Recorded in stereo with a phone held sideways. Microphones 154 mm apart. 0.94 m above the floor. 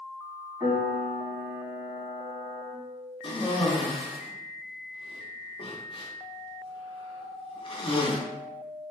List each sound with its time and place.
0.6 s a piano: 30° right (ahead or behind), 1.8 m
3.2 s a cough: 35° left (ahead or behind), 0.7 m